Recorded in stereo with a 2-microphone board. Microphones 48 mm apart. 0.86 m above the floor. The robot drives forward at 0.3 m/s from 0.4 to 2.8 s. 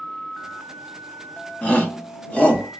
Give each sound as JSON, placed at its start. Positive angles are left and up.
{"t": 1.6, "sound": "a shout", "side_deg": 30, "distance_m": 0.9}